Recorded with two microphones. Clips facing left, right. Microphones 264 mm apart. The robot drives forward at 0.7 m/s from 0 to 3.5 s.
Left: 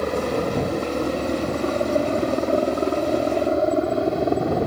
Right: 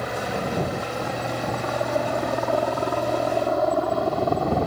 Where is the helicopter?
50° left (ahead or behind); by 4.7 s 20° left (ahead or behind).